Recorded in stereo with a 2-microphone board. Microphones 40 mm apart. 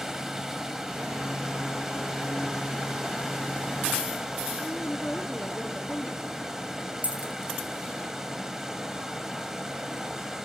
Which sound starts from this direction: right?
A dropped coin, at 7.0 s.